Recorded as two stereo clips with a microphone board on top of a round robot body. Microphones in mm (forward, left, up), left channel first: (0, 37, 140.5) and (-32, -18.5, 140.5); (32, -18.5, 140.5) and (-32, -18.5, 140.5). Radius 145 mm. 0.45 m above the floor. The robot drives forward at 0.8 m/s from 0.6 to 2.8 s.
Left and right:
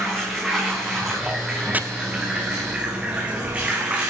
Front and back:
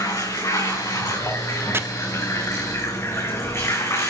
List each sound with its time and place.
0.0 s running water: 35° right, 6 m; by 4.1 s 45° right, 4.5 m
1.7 s chopping: 170° right, 1.3 m